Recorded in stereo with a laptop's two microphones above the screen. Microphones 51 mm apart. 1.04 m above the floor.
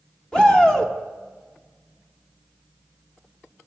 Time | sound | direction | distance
0.3 | a shout | 15° left (ahead or behind) | 2 m